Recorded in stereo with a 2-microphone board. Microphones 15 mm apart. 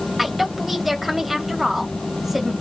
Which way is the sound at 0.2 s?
15° right (ahead or behind).